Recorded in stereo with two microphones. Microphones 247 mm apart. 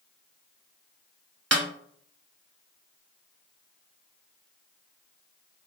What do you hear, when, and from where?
1.5 s a snare drum: 85° right, 0.7 m